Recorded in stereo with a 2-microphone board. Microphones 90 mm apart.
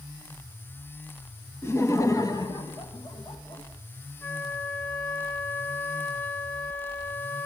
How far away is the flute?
About 0.7 m.